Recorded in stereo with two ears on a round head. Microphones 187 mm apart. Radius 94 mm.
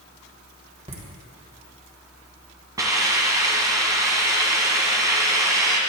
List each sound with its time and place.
0.9 s laughter: 30° right (ahead or behind), 2.0 m
2.8 s a hiss: 15° right (ahead or behind), 1.2 m